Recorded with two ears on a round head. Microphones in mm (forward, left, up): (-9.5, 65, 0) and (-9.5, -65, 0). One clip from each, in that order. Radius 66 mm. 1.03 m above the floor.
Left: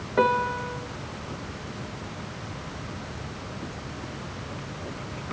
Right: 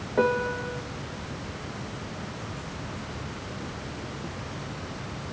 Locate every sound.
0.2 s a piano: 45° left (ahead or behind), 1.1 m